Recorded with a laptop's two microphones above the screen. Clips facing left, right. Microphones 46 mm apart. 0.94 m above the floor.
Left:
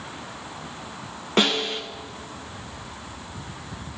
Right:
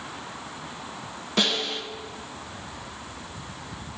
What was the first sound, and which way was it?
A snare drum, 40° left (ahead or behind).